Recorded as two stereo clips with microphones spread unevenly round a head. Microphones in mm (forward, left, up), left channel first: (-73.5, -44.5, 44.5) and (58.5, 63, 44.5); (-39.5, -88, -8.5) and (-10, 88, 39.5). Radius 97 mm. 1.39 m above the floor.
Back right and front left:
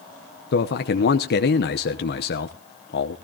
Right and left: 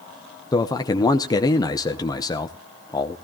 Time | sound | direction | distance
0.5 | a man speaking | 170° right | 0.9 m